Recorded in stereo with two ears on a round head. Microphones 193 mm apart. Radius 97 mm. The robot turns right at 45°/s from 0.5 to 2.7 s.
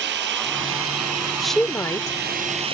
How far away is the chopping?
I don't hear chopping.